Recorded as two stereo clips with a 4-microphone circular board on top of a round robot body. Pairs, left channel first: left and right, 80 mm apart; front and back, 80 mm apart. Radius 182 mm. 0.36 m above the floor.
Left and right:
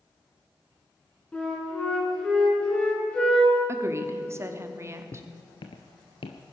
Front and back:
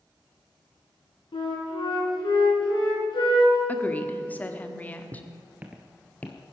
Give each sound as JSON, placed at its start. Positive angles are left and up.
{"t": 1.3, "sound": "a flute", "azimuth_deg": 20, "distance_m": 4.5}
{"t": 3.7, "sound": "a woman speaking", "azimuth_deg": -60, "distance_m": 1.7}
{"t": 5.1, "sound": "footsteps", "azimuth_deg": 135, "distance_m": 0.6}